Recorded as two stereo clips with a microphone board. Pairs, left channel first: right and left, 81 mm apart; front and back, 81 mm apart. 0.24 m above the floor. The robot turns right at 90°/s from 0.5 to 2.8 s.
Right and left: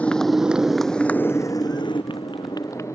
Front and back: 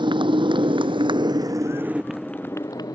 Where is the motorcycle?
165° right; by 2.9 s 40° right.